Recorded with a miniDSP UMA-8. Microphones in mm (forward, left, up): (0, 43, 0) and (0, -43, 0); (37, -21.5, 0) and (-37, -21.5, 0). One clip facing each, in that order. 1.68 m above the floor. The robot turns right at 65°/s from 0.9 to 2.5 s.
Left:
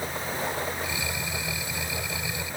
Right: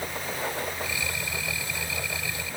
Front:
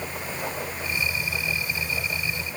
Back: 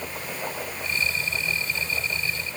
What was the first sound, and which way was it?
Only background noise.